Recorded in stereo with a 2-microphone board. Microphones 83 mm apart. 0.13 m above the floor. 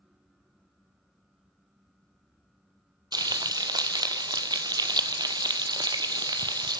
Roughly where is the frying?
Right.